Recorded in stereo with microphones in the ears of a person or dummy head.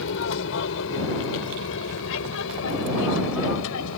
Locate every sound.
0.0 s an aircraft: 70° left (ahead or behind)